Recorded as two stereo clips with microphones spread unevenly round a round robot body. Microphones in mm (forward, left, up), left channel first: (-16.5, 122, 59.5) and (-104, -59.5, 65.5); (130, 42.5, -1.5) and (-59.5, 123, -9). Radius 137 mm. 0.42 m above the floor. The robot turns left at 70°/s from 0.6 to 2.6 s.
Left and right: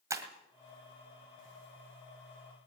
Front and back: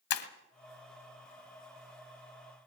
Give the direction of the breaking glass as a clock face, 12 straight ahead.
1 o'clock.